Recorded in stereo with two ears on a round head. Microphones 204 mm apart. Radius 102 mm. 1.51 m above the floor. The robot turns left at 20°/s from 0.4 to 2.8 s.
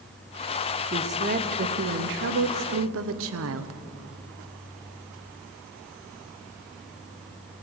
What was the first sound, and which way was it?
A woman speaking, 25° right.